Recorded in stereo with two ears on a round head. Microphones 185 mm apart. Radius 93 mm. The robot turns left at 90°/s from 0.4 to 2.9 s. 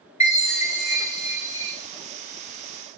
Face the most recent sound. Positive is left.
turn(degrees=-95)